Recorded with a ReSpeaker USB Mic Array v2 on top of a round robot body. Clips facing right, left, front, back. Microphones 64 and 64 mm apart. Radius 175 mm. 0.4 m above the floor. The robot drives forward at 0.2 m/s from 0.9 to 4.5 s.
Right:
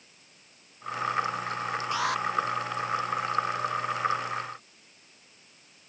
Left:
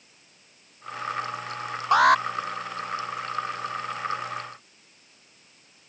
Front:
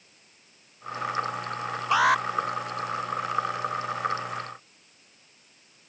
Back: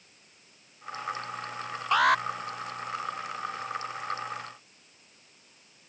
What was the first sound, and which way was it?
An alarm, 80° left.